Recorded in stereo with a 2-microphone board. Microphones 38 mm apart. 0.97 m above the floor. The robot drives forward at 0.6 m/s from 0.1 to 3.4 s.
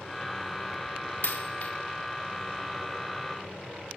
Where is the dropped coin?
60° left (ahead or behind), 0.8 m; by 1.7 s 45° left (ahead or behind), 1.0 m.